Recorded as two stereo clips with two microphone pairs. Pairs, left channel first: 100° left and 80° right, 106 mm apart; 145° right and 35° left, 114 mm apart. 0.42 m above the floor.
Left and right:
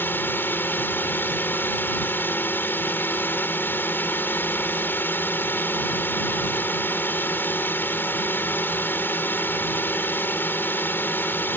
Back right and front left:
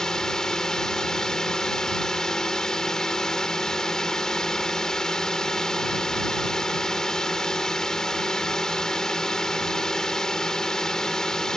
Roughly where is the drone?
Behind left.